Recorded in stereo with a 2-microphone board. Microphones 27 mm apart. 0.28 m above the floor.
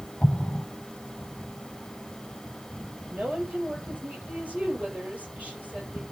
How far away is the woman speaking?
About 6.5 m.